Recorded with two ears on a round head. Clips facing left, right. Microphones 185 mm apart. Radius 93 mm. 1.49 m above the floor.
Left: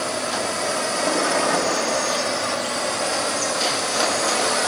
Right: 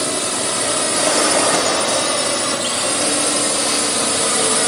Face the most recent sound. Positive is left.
turn(degrees=-45)  # may be behind; listen again after turning